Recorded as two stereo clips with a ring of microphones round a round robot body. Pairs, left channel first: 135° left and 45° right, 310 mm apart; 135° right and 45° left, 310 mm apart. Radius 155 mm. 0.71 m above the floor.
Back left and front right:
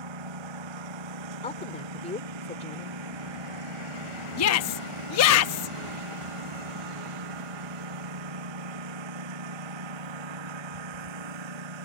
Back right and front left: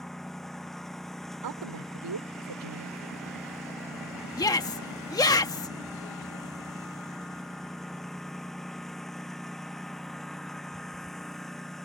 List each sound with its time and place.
0.0 s a lawn mower: 45° right
1.4 s a woman speaking: 65° left
4.4 s a shout: 150° left